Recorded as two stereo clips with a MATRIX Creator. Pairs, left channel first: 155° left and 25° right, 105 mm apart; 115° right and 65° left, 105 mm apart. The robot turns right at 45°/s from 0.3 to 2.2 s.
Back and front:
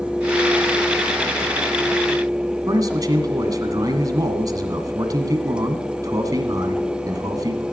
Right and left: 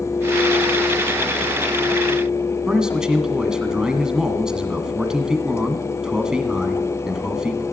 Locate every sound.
2.7 s a man speaking: 10° right, 1.6 m